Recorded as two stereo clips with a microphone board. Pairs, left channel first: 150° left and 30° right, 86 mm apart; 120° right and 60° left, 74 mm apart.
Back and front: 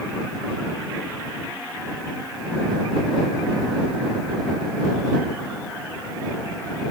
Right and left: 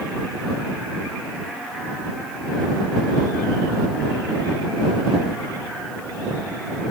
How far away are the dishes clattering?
No dishes clattering in this recording.